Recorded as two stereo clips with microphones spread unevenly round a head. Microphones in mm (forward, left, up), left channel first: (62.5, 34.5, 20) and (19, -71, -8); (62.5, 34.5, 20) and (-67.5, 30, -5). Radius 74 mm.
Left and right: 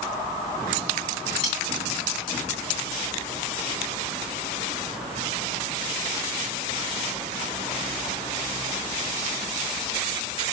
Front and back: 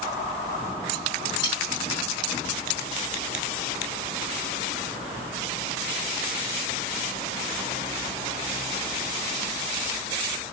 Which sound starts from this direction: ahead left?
Cutlery clinking, at 1.4 s.